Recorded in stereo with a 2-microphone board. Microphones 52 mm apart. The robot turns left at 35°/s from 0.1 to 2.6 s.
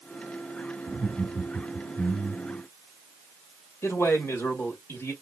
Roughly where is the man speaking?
Left.